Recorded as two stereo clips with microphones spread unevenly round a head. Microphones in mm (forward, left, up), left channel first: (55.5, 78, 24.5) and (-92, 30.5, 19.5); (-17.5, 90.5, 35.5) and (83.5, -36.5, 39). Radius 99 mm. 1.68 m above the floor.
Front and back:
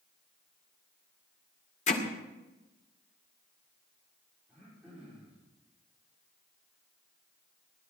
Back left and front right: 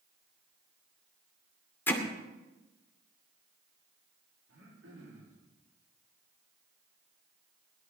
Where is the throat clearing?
75° right, 5 m.